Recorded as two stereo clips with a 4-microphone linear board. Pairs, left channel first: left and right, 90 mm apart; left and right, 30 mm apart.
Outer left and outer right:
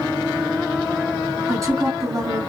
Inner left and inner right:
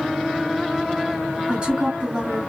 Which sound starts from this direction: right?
A woman speaking, at 1.5 s.